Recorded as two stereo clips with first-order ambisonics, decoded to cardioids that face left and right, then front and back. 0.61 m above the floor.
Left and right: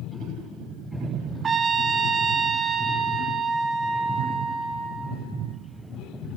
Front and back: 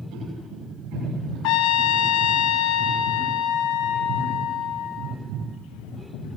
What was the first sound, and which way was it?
A trumpet, 20° right.